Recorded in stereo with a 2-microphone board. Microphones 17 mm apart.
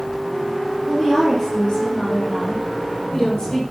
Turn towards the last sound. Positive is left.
turn(degrees=40)  # may be behind; listen again after turning